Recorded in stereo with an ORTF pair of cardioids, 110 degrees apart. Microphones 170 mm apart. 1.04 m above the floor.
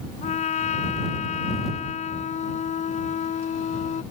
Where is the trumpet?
45° left.